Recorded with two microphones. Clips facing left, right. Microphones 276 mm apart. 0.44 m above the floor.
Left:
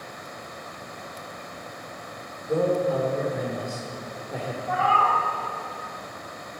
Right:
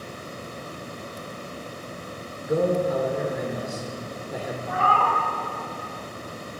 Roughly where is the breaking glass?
No breaking glass in this recording.